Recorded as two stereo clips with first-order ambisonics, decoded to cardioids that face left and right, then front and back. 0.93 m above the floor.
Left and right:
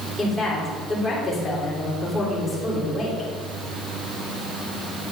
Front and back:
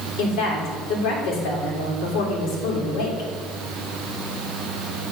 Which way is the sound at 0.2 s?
Straight ahead.